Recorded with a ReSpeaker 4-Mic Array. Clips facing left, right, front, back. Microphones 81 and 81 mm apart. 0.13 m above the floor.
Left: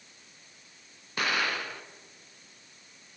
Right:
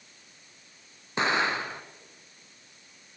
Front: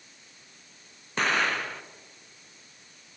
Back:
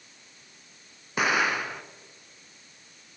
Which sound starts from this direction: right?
An explosion, at 1.2 s.